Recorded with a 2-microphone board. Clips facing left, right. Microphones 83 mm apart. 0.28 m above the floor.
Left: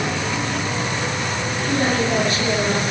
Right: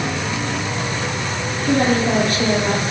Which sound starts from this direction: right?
A woman speaking, at 1.7 s.